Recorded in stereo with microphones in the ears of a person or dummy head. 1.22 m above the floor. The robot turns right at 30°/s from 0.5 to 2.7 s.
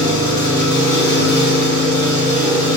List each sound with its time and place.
0.0 s an engine running: 105° right, 1.9 m; by 2.8 s 40° right, 1.9 m